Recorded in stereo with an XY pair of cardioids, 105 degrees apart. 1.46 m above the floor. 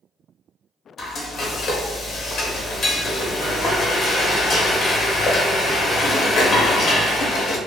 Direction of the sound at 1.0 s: 60° left.